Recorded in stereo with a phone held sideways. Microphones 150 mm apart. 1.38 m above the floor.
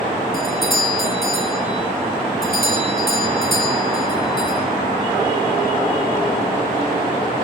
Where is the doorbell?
70° left (ahead or behind), 3 m.